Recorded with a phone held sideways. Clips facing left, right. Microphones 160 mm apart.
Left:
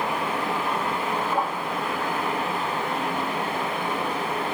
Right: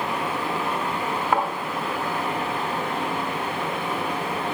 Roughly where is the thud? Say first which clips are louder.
Right 4 dB; right.